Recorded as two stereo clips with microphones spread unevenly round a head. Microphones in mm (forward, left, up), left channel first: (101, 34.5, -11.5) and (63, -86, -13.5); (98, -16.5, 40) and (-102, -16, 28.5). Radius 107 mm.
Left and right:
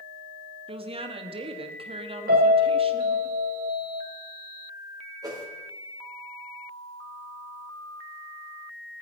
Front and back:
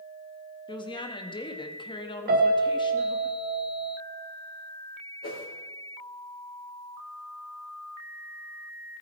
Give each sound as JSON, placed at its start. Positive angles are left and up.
{"t": 0.7, "sound": "a woman speaking", "azimuth_deg": -65, "distance_m": 1.8}
{"t": 2.3, "sound": "a piano", "azimuth_deg": -135, "distance_m": 2.5}
{"t": 5.2, "sound": "a whoosh", "azimuth_deg": -45, "distance_m": 5.0}